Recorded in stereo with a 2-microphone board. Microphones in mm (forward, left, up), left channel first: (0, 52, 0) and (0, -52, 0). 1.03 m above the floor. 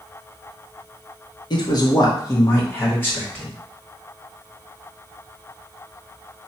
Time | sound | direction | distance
1.5 | a man speaking | 45° left (ahead or behind) | 0.9 m